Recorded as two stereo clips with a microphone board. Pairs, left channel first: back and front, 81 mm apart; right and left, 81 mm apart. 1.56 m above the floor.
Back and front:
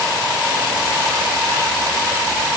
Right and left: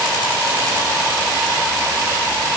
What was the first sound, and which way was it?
Only background noise.